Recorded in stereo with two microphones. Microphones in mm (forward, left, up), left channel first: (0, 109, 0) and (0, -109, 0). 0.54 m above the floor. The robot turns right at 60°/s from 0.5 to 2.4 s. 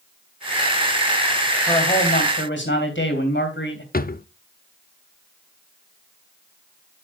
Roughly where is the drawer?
Left.